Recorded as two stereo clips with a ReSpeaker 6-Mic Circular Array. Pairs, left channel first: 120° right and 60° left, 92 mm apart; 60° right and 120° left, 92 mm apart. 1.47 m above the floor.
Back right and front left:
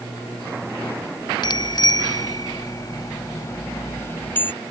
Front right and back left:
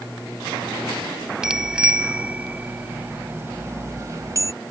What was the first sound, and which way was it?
A bicycle bell, 160° right.